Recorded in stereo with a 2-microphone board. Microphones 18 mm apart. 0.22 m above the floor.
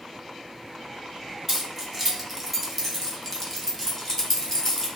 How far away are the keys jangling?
About 1.3 m.